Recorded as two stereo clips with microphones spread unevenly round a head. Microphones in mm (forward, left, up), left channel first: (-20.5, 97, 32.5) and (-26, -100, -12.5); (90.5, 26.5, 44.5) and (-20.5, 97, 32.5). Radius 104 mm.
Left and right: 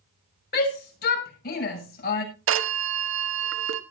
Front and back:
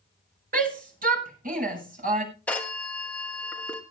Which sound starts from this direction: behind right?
A phone ringing, at 2.5 s.